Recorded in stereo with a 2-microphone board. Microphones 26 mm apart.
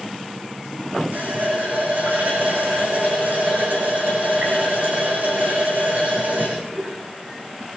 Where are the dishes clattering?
I don't hear dishes clattering.